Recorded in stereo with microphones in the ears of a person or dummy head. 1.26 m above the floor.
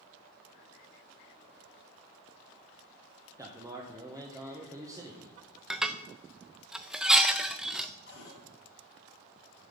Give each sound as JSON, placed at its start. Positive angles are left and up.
{"t": 3.4, "sound": "a man speaking", "side_deg": -20, "distance_m": 1.0}
{"t": 5.7, "sound": "dishes clattering", "side_deg": 0, "distance_m": 0.5}
{"t": 8.1, "sound": "a cupboard door", "side_deg": 75, "distance_m": 3.0}